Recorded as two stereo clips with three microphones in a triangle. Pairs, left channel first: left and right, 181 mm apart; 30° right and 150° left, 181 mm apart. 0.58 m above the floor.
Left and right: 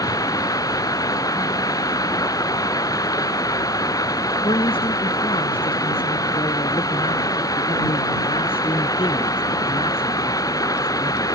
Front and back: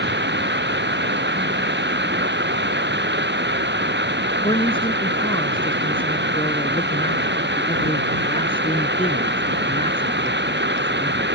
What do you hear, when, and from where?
0.0 s running water: 160° left
4.4 s a man speaking: 30° left